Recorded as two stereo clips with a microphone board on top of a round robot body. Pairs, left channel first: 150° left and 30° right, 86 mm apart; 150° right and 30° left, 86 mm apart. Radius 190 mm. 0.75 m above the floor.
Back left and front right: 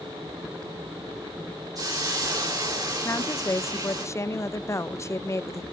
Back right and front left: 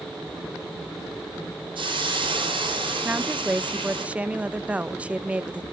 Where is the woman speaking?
100° left, 0.9 m.